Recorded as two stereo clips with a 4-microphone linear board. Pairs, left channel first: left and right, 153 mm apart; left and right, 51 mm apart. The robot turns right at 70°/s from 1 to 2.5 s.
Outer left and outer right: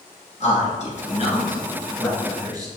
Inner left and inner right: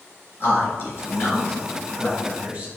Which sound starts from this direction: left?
A man speaking, at 0.4 s.